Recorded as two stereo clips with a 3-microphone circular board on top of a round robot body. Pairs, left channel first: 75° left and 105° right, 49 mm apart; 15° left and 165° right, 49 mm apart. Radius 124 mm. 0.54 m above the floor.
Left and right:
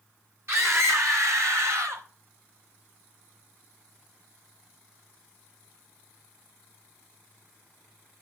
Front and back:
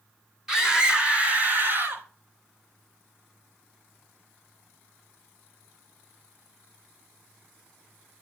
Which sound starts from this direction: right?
A scream, at 0.5 s.